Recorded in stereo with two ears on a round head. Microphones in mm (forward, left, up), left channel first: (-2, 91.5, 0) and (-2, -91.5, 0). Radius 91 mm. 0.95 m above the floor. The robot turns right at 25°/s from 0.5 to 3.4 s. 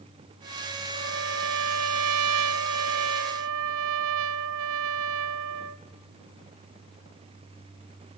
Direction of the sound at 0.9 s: 130° right.